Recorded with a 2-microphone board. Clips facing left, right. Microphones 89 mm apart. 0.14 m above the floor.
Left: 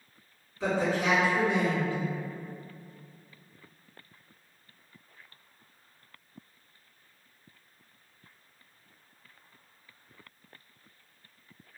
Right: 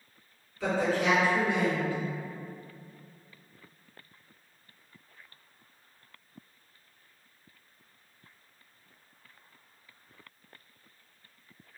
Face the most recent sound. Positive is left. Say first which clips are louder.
# even
turn(degrees=25)  # may be behind; listen again after turning